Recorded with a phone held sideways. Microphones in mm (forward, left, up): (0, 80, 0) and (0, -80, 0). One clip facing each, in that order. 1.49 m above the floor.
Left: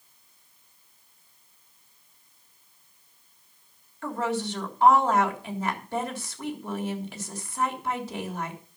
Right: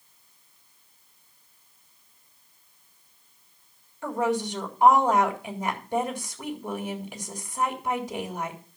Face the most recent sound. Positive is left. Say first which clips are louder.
# right 3 dB
turn(degrees=-15)  # may be behind; listen again after turning